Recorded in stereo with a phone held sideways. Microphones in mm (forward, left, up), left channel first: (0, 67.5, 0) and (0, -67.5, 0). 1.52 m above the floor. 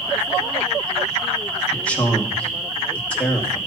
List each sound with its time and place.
1.7 s a man speaking: 10° left (ahead or behind), 2 m